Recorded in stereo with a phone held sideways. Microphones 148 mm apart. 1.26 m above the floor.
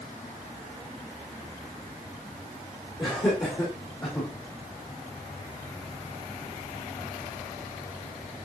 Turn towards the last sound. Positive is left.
turn(degrees=25)  # may be behind; listen again after turning